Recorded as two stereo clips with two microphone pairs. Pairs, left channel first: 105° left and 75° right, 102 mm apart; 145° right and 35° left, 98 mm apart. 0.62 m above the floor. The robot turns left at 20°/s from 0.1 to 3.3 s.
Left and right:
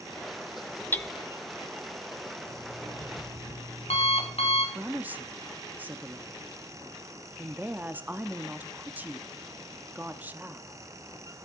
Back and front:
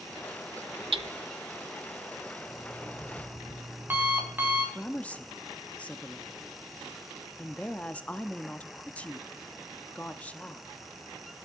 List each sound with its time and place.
0.9 s hammering: 35° left, 0.8 m
2.5 s an alarm clock: 120° left, 3 m; by 4.7 s 105° left, 3 m
4.8 s a woman speaking: 100° right, 0.7 m